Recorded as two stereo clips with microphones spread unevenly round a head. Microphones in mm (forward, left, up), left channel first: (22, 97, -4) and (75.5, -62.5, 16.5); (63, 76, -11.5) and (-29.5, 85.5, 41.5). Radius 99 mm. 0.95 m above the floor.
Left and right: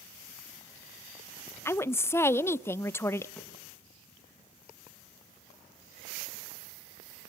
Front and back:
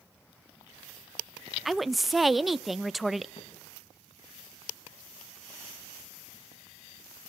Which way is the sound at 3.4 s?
20° left.